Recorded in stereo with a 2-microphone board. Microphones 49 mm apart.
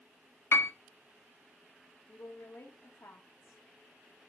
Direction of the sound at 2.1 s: 80° left.